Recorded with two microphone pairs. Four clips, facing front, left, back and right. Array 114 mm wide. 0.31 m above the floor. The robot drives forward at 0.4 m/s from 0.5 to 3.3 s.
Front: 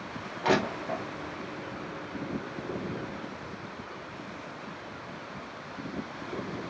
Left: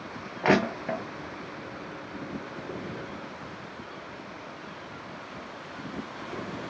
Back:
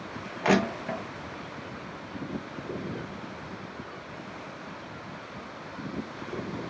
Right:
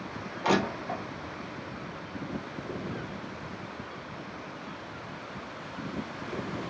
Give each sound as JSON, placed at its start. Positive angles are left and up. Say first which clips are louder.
{"t": 0.4, "sound": "crushing", "louder": "left 3 dB, back 2 dB", "azimuth_deg": 105, "distance_m": 1.4}